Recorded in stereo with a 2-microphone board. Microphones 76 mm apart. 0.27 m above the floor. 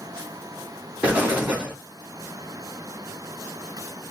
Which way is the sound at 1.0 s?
20° right (ahead or behind).